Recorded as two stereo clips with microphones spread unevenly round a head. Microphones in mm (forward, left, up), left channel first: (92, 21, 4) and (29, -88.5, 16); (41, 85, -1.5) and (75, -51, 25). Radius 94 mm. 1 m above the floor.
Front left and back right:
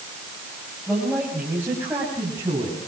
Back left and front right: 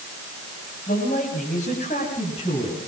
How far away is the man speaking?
About 5.5 m.